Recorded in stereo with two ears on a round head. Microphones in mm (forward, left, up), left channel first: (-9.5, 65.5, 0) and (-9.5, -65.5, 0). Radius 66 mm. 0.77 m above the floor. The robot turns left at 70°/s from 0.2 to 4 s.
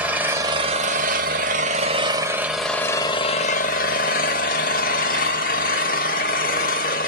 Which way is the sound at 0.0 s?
10° right.